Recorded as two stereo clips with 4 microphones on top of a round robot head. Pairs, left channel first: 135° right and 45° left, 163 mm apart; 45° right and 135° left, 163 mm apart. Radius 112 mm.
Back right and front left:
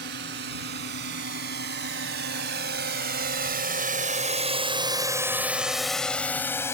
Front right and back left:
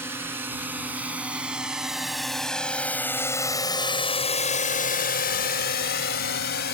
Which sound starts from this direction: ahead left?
A drone, at 0.0 s.